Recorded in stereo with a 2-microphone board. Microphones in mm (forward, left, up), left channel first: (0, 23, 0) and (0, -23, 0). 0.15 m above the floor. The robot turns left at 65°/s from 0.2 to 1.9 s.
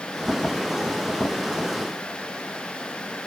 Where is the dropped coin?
I don't hear a dropped coin.